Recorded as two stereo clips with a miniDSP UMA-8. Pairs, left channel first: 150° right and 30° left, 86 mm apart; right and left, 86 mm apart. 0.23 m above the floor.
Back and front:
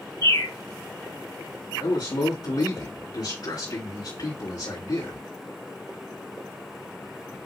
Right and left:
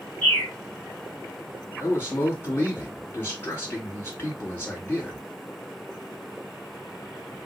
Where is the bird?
165° right, 3 m.